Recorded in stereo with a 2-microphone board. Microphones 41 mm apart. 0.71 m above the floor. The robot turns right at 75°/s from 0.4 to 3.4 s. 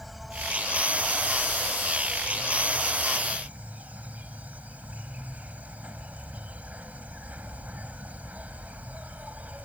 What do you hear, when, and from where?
0.0 s an insect: 5° right; by 9.7 s 140° right